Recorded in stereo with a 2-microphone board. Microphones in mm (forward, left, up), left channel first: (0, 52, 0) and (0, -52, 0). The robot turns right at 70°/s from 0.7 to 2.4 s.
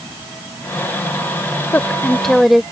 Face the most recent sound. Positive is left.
turn(degrees=-175)